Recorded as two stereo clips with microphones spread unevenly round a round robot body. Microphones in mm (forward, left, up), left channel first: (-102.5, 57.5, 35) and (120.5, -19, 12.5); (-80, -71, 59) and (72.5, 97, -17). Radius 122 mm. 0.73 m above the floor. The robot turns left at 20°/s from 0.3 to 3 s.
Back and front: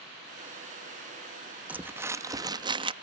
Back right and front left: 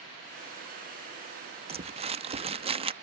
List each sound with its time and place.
1.7 s crumpling: 55° left; by 2.9 s 30° left